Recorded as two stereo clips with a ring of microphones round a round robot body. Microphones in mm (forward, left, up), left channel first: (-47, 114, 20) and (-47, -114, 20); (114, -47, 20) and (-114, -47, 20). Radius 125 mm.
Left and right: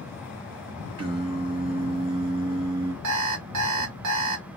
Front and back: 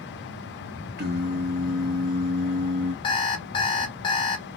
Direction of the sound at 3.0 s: 70° right.